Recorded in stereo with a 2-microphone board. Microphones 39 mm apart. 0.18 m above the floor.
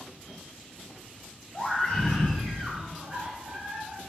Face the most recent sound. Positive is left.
turn(degrees=-40)  # may be behind; listen again after turning